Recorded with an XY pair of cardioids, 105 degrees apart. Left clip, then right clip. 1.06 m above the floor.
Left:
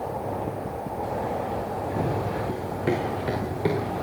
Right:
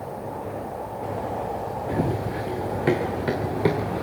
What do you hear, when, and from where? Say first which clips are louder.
1.9 s running footsteps: right 2 dB; 45° right, 6.5 m; by 4.0 s 25° right, 6.5 m